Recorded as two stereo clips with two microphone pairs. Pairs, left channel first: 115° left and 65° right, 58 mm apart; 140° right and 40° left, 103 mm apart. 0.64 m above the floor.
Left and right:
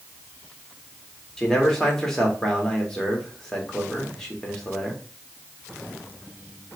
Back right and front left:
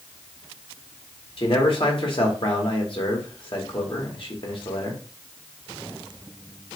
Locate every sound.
1.4 s a man speaking: 165° right, 1.3 m